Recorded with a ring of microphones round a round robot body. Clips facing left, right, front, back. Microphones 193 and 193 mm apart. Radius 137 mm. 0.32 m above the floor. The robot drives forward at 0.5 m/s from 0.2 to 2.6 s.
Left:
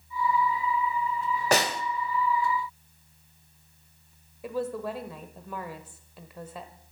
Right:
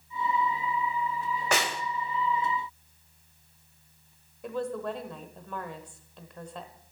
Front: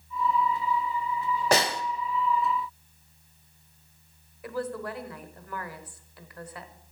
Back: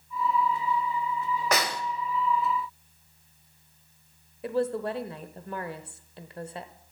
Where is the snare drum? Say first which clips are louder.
Left 5 dB, front 6 dB; 50° left, 1.1 m; by 1.8 s 60° left, 1.0 m.